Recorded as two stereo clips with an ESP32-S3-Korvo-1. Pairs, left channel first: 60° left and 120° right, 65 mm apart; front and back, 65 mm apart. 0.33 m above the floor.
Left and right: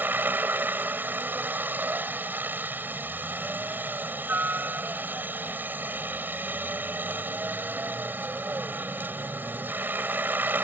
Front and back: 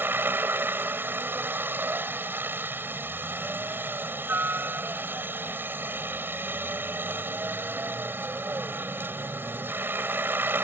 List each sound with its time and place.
0.0 s a helicopter: 155° right